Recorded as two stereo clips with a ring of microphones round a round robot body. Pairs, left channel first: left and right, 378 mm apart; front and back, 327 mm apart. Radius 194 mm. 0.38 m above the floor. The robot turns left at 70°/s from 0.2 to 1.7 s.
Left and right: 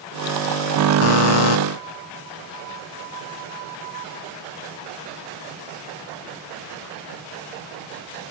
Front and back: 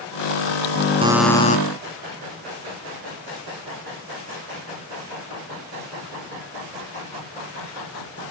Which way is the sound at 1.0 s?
105° left.